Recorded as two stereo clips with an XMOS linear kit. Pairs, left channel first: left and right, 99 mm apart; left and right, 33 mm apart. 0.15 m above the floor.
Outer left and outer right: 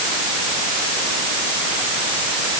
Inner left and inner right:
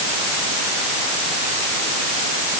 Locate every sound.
Only background noise.